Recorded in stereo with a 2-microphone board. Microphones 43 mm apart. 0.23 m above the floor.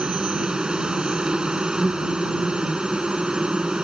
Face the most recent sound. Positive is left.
turn(degrees=-20)  # may be behind; listen again after turning